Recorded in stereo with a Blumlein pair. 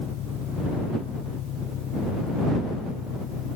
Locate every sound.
0.0 s an engine running: 35° left